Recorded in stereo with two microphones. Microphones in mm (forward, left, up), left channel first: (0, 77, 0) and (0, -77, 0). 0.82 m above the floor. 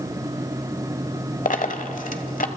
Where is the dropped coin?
60° left (ahead or behind), 1.3 m.